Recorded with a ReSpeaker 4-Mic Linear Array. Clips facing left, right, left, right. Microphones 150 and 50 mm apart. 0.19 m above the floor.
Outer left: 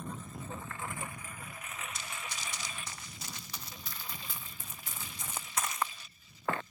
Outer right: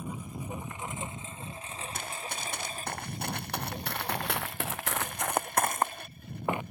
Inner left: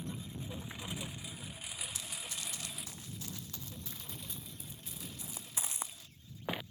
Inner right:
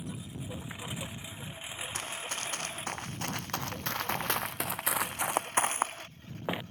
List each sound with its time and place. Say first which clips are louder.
0.0 s a lawn mower: outer right 4 dB, inner right 2 dB; 10° right (ahead or behind); by 6.7 s 60° right (ahead or behind)
1.9 s running footsteps: outer right 5 dB, inner right 8 dB; 55° right (ahead or behind); by 6.6 s 15° right (ahead or behind)